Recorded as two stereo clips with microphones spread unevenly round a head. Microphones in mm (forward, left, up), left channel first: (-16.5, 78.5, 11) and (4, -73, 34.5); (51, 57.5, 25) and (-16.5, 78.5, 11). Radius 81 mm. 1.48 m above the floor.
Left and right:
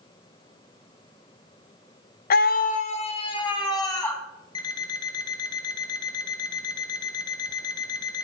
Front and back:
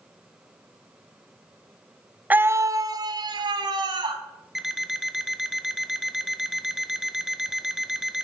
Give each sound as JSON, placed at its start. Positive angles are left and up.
{"t": 2.3, "sound": "a scream", "azimuth_deg": 100, "distance_m": 0.7}
{"t": 4.5, "sound": "an alarm clock", "azimuth_deg": 50, "distance_m": 0.6}